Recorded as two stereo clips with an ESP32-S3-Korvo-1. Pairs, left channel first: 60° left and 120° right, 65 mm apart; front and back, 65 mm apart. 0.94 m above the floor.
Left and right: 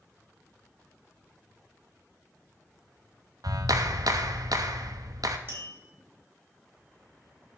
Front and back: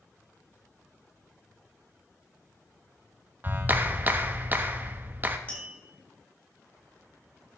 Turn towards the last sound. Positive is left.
turn(degrees=-70)